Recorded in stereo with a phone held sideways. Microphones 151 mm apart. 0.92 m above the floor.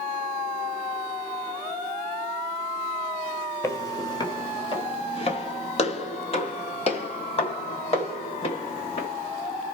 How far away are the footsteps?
About 1.0 m.